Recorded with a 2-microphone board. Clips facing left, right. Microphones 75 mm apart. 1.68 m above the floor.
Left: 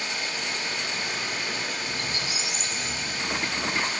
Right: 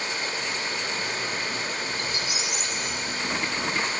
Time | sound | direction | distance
0.0 | running water | 35° right (ahead or behind) | 1.6 m
1.9 | a squeak | 30° left (ahead or behind) | 0.9 m